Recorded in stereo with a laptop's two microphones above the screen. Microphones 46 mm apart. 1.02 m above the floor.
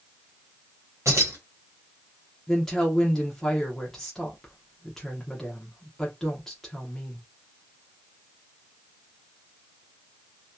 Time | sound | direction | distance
1.1 | keys jangling | 70° right (ahead or behind) | 1.2 m
2.5 | a woman speaking | 5° left (ahead or behind) | 0.8 m